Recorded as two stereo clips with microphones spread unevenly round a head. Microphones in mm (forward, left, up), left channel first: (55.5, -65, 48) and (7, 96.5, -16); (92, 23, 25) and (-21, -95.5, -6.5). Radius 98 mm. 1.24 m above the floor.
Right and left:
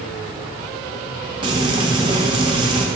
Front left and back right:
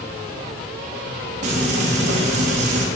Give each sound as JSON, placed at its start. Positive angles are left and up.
{"t": 1.4, "sound": "frying", "azimuth_deg": 170, "distance_m": 1.8}